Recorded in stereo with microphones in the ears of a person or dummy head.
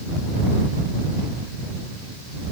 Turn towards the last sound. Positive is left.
No sound to turn to.